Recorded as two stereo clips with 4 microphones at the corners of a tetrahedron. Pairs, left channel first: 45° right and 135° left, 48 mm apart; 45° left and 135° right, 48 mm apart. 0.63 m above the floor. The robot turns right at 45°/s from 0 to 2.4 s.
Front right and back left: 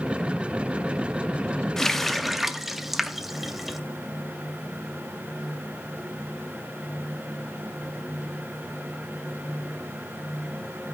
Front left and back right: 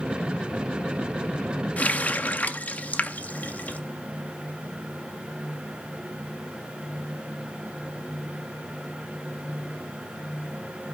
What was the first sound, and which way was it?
A running tap, 25° left.